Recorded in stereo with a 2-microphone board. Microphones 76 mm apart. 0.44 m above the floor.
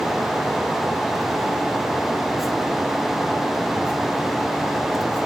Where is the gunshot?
No gunshot in this recording.